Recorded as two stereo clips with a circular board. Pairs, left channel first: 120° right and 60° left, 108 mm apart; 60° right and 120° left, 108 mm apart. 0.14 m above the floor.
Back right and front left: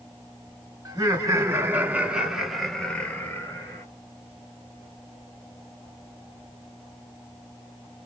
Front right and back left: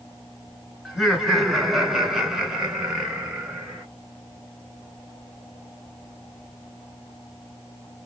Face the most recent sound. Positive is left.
turn(degrees=-160)